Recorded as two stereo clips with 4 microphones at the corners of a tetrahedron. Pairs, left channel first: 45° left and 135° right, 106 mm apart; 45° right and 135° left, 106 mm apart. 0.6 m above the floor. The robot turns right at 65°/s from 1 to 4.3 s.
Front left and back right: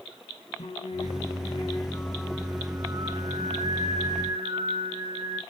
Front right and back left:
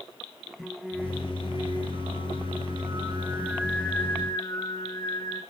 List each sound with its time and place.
0.6 s singing: 50° left, 3 m; by 5.4 s 95° right, 3 m